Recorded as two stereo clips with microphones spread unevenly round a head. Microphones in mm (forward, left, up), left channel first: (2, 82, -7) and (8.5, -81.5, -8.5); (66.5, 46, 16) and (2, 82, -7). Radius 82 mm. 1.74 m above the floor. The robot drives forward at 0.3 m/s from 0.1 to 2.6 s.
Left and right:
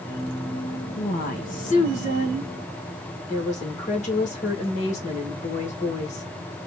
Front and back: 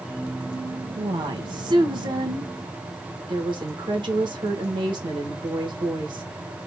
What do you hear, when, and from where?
1.0 s a woman speaking: 125° left, 1.4 m; by 6.2 s 140° left, 1.7 m